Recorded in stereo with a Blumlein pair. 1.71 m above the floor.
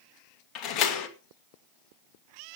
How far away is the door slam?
About 2 m.